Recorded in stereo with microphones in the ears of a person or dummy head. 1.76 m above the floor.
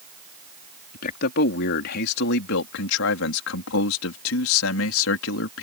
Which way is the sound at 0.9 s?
55° left (ahead or behind).